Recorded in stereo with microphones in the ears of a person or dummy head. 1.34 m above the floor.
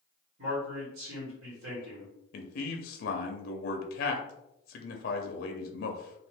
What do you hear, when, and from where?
0.4 s a man speaking: 70° right (ahead or behind), 1.6 m
2.3 s a man speaking: 60° left (ahead or behind), 0.6 m